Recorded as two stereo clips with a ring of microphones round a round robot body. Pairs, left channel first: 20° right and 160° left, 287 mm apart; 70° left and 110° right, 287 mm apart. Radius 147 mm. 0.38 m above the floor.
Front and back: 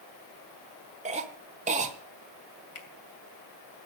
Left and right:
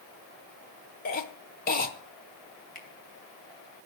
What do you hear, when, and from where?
1.1 s a cough: 105° left, 0.9 m
2.8 s a finger snap: 10° left, 2.5 m